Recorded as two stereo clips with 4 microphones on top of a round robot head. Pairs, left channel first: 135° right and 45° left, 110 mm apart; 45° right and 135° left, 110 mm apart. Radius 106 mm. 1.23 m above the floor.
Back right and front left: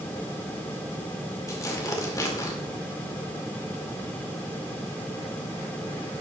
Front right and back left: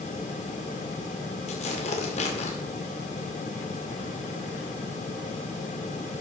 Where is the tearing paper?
75° right, 2 m.